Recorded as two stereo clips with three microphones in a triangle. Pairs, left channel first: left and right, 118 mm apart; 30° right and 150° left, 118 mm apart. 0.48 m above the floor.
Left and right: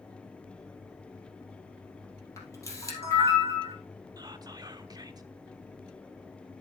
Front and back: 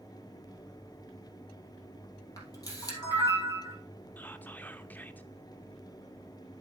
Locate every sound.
2.4 s a camera shutter: 25° left, 2.5 m
4.2 s whispering: 95° right, 0.8 m